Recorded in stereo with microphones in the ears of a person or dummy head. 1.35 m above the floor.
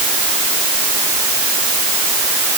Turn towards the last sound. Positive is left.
No sound to turn to.